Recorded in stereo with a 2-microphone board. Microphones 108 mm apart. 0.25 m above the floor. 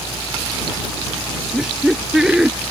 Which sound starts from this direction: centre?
Laughter, at 1.5 s.